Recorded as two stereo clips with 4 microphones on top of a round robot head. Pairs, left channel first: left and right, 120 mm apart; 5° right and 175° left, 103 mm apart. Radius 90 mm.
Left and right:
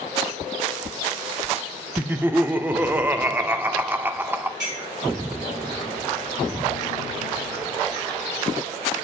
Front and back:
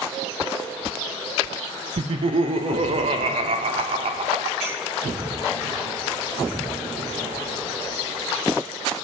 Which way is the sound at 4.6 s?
105° right.